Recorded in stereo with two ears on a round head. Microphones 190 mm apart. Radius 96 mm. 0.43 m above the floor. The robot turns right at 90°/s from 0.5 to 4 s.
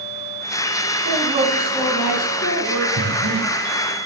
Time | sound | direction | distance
1.1 | a woman speaking | 60° right | 4 m
3.0 | breathing | 65° right (ahead or behind) | 5 m